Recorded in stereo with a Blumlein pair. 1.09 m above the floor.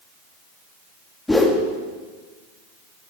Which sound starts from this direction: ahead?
A whoosh, at 1.3 s.